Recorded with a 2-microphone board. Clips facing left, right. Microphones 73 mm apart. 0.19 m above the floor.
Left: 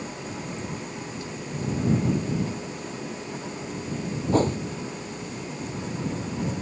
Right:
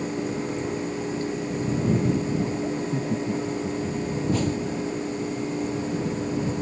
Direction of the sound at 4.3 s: 40° left (ahead or behind).